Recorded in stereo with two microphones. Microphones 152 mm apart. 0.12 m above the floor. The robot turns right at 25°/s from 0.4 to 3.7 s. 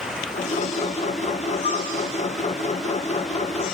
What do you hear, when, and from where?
1.6 s a flute: 45° left (ahead or behind), 5 m; by 1.9 s 40° left (ahead or behind), 5 m